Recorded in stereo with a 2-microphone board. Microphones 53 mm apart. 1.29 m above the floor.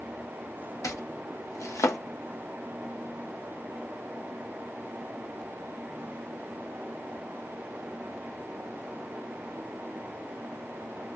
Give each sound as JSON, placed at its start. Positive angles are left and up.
{"t": 0.8, "sound": "chopping", "side_deg": 80, "distance_m": 0.7}